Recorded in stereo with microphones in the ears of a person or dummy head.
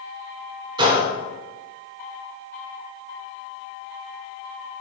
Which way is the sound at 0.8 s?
20° right (ahead or behind).